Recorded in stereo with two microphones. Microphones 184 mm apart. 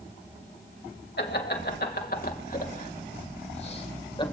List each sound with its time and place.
1.2 s laughter: 60° left (ahead or behind), 3 m; by 4.2 s 25° left (ahead or behind), 2.5 m